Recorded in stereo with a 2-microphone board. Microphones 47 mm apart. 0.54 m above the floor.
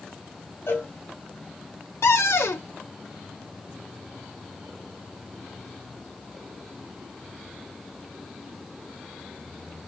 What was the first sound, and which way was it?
A cowbell, 75° left (ahead or behind).